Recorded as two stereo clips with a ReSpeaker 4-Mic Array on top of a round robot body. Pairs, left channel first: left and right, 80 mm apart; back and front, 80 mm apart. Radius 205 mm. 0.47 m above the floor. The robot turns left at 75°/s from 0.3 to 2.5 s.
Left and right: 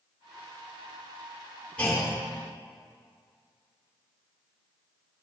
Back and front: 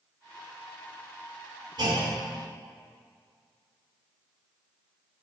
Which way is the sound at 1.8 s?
20° left.